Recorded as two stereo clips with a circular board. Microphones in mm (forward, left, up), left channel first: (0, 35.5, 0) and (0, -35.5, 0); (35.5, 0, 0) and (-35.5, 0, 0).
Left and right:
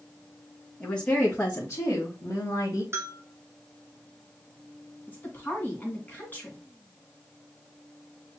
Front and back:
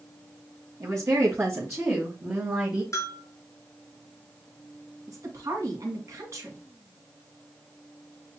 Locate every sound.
0.8 s a woman speaking: 165° left, 1.9 m; by 2.8 s 115° left, 2.5 m
2.9 s a bell: 40° right, 1.4 m
5.1 s a woman speaking: 150° left, 2 m